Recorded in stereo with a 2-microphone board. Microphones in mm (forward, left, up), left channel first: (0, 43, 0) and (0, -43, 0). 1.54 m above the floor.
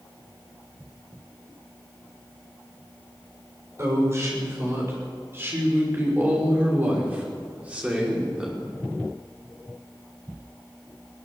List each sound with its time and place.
3.8 s a woman speaking: 35° right (ahead or behind), 6.5 m; by 8.7 s 10° right (ahead or behind), 5 m